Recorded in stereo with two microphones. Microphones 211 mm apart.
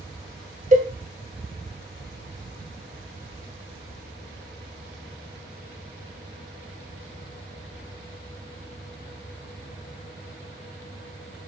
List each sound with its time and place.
0.7 s a cowbell: 35° right (ahead or behind), 0.7 m